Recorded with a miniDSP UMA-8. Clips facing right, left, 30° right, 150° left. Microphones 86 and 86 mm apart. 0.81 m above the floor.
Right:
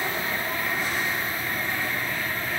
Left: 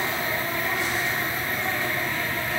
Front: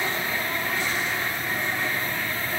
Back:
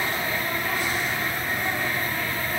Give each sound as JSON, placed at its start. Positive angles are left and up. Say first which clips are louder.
{"t": 0.0, "sound": "an insect", "louder": "left 1 dB, back 1 dB", "azimuth_deg": 100, "distance_m": 8.0}